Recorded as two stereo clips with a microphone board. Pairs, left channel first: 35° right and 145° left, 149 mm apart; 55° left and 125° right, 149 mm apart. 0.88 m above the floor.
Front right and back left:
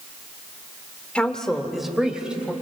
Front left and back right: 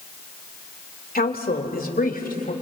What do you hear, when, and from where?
1.1 s a woman speaking: 45° left, 2.0 m; by 2.5 s 65° left, 3.5 m